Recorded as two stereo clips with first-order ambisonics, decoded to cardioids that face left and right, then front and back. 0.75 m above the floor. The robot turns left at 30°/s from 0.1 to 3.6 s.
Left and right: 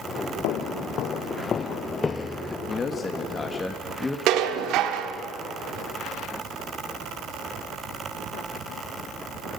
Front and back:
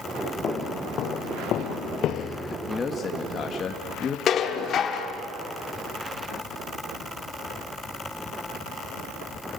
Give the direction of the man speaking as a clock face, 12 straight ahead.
10 o'clock.